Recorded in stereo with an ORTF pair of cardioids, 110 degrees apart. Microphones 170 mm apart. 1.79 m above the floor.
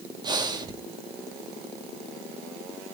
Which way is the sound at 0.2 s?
25° right.